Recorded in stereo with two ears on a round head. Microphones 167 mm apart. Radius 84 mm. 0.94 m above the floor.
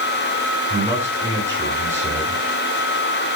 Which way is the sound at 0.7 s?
15° right (ahead or behind).